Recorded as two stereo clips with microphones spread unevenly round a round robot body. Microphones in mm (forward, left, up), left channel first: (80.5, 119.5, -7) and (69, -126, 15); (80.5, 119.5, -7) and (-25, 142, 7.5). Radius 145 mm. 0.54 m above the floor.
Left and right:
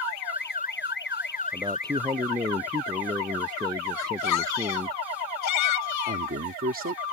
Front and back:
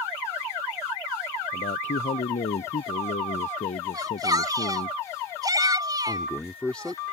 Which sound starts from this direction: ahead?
A man speaking, at 1.5 s.